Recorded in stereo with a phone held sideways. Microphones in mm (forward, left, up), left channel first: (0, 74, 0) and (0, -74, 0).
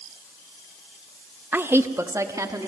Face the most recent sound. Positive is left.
turn(degrees=-25)  # may be behind; listen again after turning